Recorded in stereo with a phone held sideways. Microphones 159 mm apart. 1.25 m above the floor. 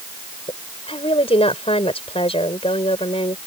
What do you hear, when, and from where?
0.5 s a woman speaking: 35° left (ahead or behind)